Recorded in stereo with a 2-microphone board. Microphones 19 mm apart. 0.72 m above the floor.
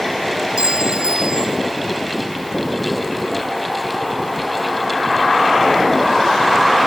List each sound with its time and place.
0.6 s a clink: 60° right (ahead or behind)